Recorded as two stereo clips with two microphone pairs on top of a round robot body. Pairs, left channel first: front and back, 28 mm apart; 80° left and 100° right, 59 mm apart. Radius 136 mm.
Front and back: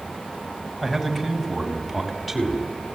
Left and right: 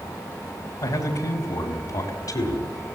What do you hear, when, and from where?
0.8 s a man speaking: 85° left, 4.5 m; by 2.7 s 90° left, 6 m